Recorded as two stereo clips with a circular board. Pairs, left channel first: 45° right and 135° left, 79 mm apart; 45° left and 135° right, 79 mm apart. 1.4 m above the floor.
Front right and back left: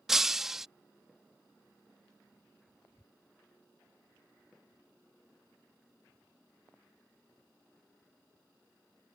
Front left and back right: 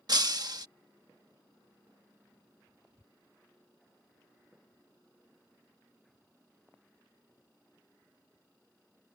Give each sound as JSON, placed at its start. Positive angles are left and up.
{"t": 0.1, "sound": "breaking glass", "azimuth_deg": -140}